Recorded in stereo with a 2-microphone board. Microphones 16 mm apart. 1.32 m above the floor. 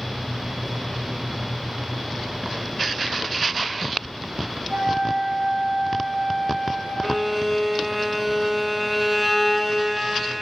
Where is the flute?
70° right (ahead or behind), 3.5 m.